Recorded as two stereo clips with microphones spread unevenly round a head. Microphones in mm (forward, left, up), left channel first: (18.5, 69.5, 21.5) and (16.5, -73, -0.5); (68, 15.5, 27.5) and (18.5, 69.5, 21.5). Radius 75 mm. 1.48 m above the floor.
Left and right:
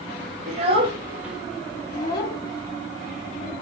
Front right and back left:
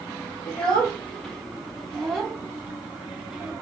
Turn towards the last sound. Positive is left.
turn(degrees=45)